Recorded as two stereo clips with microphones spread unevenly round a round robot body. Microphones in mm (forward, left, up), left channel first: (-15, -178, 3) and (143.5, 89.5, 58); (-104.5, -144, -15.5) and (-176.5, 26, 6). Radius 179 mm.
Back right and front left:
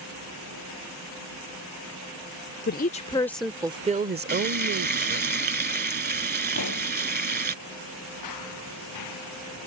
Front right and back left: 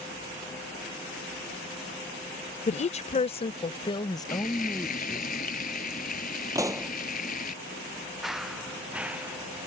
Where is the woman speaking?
90° right; by 5.3 s 20° left.